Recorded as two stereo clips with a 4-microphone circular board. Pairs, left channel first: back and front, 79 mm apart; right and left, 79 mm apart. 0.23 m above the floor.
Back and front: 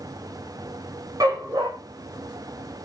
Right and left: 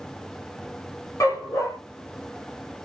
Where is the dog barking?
40° right, 3.5 m.